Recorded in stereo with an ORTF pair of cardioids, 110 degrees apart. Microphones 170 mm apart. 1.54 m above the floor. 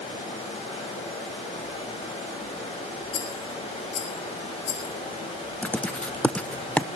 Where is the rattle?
65° left, 4.5 m.